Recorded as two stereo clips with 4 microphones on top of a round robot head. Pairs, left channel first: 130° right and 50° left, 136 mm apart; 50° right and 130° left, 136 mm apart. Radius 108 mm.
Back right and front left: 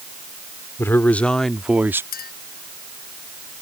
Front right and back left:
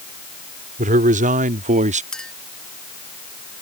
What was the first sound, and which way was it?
A man speaking, 155° left.